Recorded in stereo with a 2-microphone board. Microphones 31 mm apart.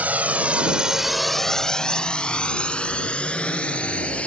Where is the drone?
60° right (ahead or behind); by 4.3 s 40° left (ahead or behind).